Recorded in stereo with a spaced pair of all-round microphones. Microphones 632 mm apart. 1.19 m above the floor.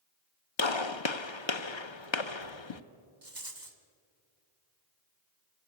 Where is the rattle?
30° right (ahead or behind), 1.6 m.